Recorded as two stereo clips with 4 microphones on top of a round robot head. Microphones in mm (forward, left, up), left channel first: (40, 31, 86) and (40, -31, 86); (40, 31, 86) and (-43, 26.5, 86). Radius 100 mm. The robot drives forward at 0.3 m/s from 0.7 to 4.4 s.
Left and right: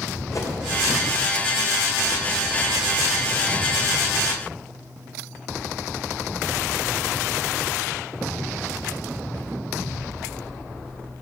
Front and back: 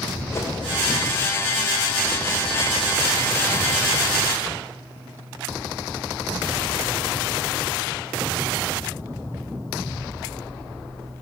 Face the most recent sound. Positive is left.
turn(degrees=90)